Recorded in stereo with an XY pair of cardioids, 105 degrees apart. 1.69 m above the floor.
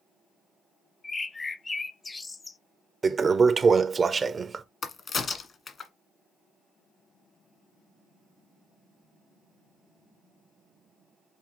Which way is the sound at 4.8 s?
45° left.